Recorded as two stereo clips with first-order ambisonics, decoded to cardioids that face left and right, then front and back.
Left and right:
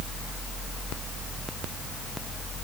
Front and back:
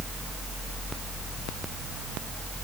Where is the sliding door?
I don't hear a sliding door.